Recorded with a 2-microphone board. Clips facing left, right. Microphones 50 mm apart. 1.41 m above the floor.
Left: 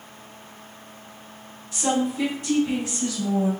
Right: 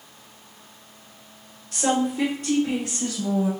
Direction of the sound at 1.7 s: 60° right (ahead or behind).